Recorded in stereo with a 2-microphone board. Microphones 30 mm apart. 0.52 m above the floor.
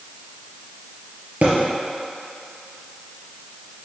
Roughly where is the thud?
Right.